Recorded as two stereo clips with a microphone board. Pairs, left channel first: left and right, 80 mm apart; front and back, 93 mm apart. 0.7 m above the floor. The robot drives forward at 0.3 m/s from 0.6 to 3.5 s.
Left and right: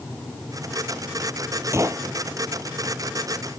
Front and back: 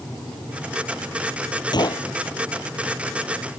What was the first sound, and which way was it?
A gunshot, 40° right.